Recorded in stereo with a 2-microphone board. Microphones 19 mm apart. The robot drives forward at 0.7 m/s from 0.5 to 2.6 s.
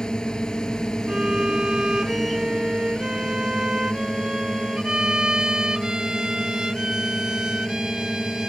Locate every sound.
0.0 s a drone: 45° left (ahead or behind)
1.1 s a violin: 45° right (ahead or behind)